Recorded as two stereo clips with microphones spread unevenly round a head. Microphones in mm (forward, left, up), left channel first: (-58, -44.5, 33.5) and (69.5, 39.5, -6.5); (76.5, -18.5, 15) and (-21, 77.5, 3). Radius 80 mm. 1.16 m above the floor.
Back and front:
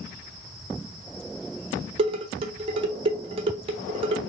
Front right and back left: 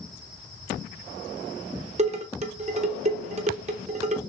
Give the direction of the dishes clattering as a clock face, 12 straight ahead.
9 o'clock.